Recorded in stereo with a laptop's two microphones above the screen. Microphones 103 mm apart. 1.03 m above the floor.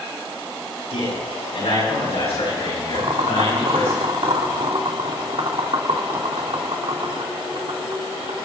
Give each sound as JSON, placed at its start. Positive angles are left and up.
{"t": 0.9, "sound": "a man speaking", "side_deg": 75, "distance_m": 8.0}
{"t": 2.9, "sound": "boiling", "side_deg": -60, "distance_m": 2.0}